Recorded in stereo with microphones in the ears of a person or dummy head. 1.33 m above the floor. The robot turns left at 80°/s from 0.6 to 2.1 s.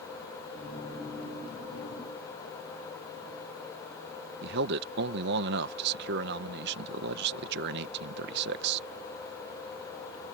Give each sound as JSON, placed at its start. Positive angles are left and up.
{"t": 4.4, "sound": "a man speaking", "side_deg": -50}